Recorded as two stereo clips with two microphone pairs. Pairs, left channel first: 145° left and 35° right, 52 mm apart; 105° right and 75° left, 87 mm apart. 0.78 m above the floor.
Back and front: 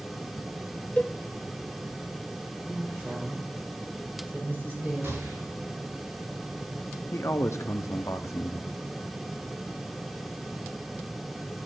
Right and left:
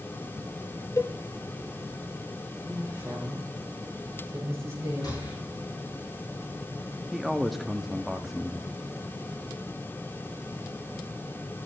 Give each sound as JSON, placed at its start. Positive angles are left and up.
{"t": 1.0, "sound": "a cowbell", "azimuth_deg": -160, "distance_m": 0.6}
{"t": 2.6, "sound": "a woman speaking", "azimuth_deg": 15, "distance_m": 5.5}
{"t": 5.0, "sound": "a gunshot", "azimuth_deg": -60, "distance_m": 7.5}
{"t": 7.1, "sound": "a man speaking", "azimuth_deg": 160, "distance_m": 0.9}